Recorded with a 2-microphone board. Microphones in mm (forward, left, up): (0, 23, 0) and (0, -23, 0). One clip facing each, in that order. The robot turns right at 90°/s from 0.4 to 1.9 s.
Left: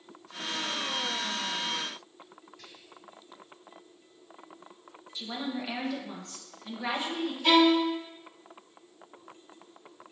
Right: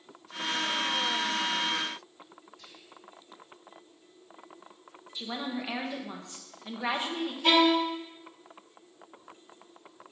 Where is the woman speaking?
20° right (ahead or behind), 1.2 m.